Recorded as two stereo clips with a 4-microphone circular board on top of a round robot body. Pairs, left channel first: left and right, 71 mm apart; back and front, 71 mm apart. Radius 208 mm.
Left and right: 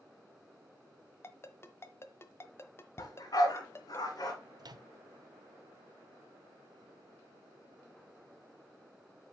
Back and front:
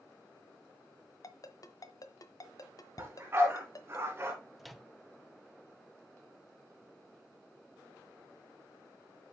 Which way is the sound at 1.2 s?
145° left.